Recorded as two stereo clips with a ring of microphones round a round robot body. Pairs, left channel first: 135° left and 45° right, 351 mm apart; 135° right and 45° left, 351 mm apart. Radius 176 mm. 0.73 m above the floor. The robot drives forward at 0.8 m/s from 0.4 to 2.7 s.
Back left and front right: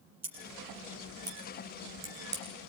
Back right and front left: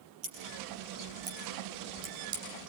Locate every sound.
0.2 s scissors: 25° left, 9.5 m; by 2.7 s 30° left, 8 m